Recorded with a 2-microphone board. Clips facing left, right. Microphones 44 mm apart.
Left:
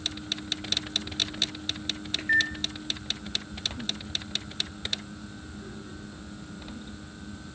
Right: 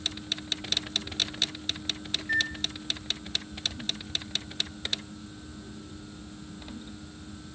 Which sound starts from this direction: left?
A microwave, at 2.2 s.